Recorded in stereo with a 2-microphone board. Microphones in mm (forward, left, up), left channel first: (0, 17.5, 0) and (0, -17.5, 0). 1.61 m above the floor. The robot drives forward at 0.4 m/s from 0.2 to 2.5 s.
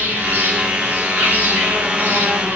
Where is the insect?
80° right, 5.5 m.